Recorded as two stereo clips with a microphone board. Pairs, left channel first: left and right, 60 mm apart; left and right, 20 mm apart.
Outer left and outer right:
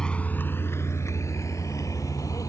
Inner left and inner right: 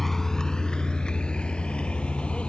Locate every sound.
0.0 s a vehicle: 10° left (ahead or behind); by 2.5 s 65° left (ahead or behind)